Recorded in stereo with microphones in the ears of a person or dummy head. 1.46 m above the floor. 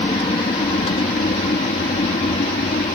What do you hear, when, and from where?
0.0 s an aircraft: 30° left (ahead or behind); by 3.0 s 35° left (ahead or behind)